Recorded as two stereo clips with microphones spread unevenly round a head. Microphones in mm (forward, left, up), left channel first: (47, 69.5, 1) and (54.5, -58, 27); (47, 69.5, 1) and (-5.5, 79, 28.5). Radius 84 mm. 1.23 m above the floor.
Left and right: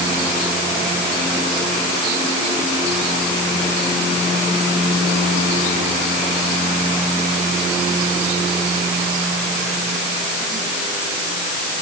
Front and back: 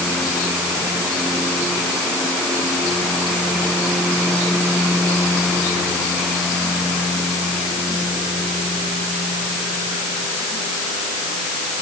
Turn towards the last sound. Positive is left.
No sound to turn to.